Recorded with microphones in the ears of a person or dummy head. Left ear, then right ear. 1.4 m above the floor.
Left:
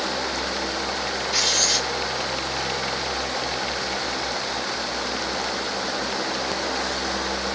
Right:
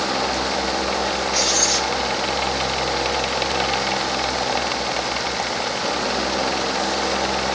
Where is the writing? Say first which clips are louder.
Even; 60° left (ahead or behind), 3 m.